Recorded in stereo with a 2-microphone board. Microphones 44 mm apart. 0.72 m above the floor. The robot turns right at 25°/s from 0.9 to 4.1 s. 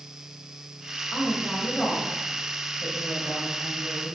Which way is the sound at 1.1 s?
5° right.